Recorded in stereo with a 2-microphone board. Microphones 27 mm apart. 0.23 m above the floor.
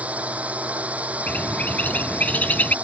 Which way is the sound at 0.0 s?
65° right (ahead or behind).